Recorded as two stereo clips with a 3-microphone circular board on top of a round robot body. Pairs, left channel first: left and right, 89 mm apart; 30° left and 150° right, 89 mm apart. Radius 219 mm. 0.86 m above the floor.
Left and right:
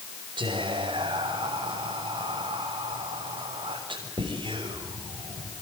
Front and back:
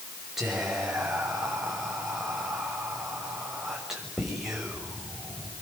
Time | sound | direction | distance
0.4 | whispering | 65° right | 6.5 m